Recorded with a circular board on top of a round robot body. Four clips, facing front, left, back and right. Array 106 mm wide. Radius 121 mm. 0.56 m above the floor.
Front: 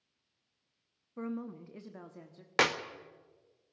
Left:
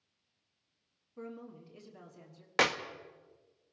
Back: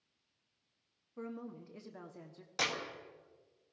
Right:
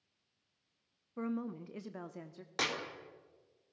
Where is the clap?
30° left, 1.8 m.